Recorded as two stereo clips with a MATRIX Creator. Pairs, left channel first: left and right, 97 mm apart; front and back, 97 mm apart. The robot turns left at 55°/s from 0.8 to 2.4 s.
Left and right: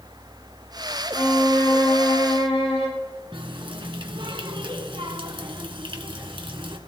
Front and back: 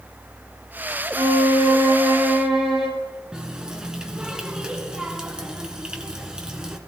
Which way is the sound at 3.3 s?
100° right.